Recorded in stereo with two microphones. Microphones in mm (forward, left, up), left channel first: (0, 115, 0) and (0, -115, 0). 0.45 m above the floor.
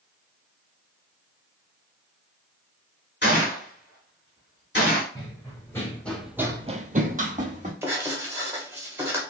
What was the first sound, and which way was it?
A gunshot, 50° left (ahead or behind).